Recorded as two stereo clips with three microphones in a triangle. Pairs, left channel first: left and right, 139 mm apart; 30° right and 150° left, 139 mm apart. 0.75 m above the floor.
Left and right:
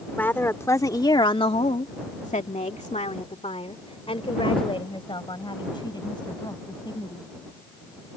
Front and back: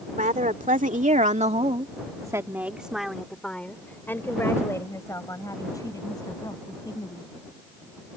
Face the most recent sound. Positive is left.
turn(degrees=30)